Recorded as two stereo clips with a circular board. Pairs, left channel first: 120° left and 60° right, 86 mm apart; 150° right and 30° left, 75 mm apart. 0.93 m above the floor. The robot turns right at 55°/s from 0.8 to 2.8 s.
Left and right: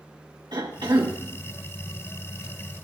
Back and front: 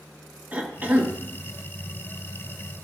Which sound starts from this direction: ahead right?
A cough, at 0.5 s.